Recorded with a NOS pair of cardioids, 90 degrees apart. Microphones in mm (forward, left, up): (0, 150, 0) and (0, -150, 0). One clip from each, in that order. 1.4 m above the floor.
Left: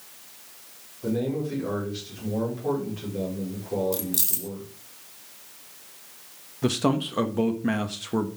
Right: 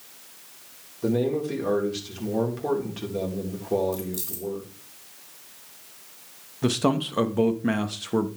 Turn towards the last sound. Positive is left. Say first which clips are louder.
# right 1 dB
turn(degrees=-10)